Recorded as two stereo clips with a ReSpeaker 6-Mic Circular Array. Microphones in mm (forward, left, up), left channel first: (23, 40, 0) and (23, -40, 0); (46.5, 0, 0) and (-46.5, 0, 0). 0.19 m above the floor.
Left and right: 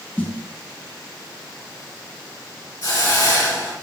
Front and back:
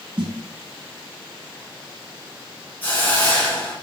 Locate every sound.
0.2 s a snare drum: 155° left, 0.6 m
2.8 s a hiss: 65° left, 1.2 m